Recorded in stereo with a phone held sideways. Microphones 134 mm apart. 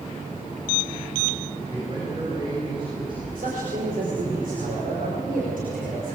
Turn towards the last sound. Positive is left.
turn(degrees=-85)